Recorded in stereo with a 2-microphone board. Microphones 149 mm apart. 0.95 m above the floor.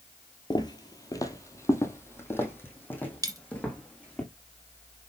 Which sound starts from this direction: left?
Footsteps, at 0.5 s.